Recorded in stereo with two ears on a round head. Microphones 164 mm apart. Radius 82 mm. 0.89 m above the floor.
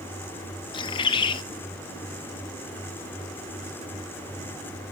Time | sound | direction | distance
0.7 | a bird | 25° left (ahead or behind) | 0.6 m